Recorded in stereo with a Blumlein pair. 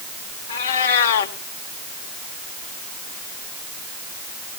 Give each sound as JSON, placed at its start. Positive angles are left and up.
{"t": 0.5, "sound": "a cat meowing", "azimuth_deg": 60, "distance_m": 2.0}